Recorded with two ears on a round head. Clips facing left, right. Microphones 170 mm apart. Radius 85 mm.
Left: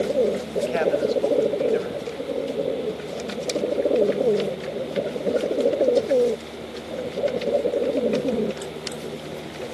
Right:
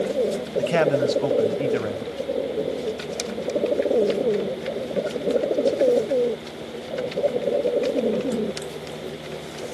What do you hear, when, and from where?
0.6 s a man speaking: 65° right (ahead or behind), 2.5 m